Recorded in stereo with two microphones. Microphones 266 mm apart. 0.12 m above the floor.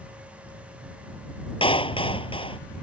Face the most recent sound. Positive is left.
turn(degrees=20)  # may be behind; listen again after turning